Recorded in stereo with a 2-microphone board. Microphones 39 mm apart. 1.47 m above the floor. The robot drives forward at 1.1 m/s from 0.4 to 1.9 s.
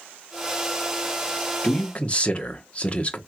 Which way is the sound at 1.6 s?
25° left (ahead or behind).